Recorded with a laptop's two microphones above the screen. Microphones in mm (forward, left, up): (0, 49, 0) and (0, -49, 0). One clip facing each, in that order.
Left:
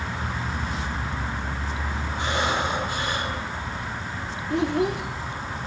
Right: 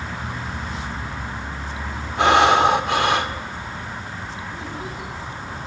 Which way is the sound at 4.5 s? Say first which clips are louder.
Left 9 dB; 65° left (ahead or behind).